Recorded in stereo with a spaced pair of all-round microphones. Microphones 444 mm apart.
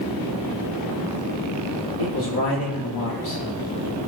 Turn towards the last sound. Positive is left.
turn(degrees=60)  # may be behind; listen again after turning